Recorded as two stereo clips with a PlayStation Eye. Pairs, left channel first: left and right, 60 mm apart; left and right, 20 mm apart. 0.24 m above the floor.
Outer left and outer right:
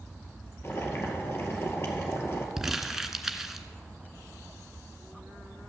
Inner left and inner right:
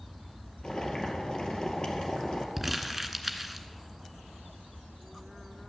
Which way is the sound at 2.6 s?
5° right (ahead or behind).